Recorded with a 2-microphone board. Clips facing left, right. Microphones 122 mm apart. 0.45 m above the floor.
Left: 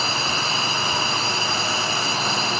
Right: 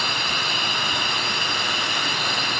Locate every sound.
0.0 s a drone: 30° left (ahead or behind)